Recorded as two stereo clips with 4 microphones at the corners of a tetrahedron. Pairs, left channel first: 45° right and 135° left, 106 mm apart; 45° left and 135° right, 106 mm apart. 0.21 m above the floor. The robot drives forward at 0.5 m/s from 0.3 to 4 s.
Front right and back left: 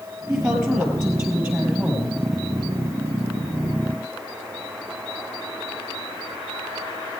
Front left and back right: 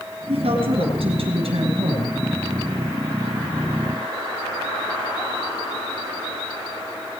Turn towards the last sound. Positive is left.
turn(degrees=-150)